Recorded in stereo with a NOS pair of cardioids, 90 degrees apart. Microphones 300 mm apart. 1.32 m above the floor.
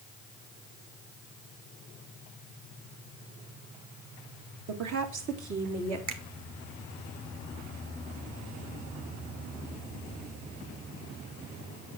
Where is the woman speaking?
60° right, 2.5 m; by 6.0 s 70° right, 3.5 m.